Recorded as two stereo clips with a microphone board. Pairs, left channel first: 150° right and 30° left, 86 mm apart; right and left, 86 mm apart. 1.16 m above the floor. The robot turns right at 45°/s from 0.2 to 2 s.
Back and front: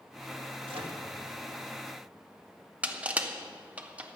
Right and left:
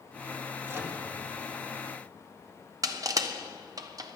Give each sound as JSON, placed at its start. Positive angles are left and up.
{"t": 0.7, "sound": "a microwave", "azimuth_deg": 25, "distance_m": 1.5}
{"t": 2.8, "sound": "crushing", "azimuth_deg": 100, "distance_m": 0.9}